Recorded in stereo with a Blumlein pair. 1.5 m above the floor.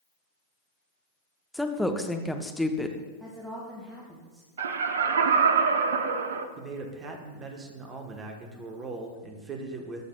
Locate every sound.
1.5 s a woman speaking: straight ahead, 0.7 m
3.2 s a woman speaking: 10° right, 1.4 m
4.6 s laughter: 65° right, 0.6 m
6.6 s a man speaking: 25° right, 1.0 m